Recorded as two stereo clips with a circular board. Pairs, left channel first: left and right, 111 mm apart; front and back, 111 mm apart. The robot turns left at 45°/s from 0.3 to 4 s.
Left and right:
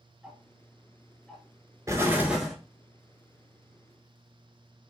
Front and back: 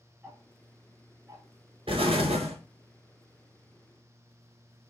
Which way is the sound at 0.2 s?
145° right.